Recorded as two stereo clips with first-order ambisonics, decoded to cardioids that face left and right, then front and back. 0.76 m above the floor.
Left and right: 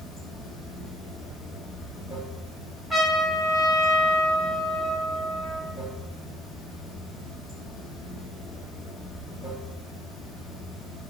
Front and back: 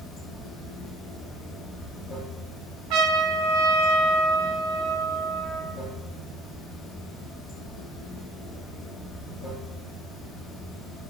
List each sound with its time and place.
0.0 s running water: 40° left, 1.5 m
2.9 s a trumpet: 175° right, 0.6 m